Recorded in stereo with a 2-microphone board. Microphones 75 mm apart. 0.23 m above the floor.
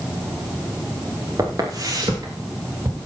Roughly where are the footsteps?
Right.